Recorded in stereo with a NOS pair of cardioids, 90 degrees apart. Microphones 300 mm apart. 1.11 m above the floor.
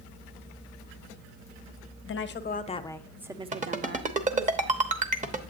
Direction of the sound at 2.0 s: 45° left.